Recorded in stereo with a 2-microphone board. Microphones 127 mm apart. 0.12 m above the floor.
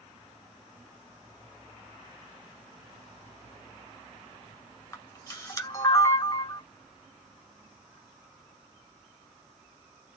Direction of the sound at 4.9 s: 25° left (ahead or behind).